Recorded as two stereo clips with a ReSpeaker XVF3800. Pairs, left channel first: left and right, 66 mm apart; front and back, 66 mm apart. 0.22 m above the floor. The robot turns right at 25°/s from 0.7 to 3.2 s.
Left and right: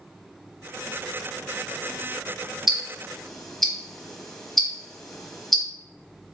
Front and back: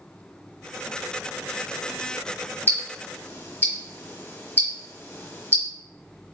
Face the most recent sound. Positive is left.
turn(degrees=10)